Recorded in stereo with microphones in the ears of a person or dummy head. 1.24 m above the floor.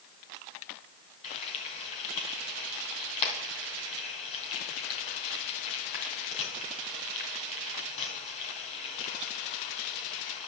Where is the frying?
30° left (ahead or behind), 2.5 m.